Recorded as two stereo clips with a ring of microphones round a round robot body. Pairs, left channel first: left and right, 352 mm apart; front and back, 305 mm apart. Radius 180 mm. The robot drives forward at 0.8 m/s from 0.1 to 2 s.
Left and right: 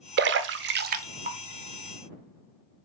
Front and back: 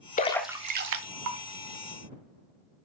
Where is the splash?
50° right, 0.5 m; by 1.4 s 160° right, 0.9 m.